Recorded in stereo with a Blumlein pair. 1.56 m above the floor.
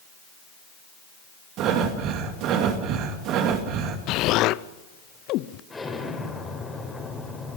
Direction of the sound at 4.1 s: 40° left.